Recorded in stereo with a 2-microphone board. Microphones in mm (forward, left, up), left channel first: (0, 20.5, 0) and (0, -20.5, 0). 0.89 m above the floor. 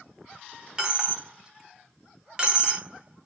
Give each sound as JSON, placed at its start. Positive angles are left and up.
{"t": 0.8, "sound": "a dropped coin", "side_deg": -20, "distance_m": 0.7}